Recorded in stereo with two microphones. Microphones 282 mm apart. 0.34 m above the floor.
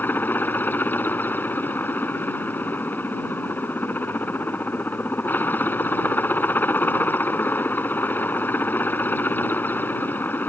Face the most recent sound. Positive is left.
turn(degrees=5)  # may be behind; listen again after turning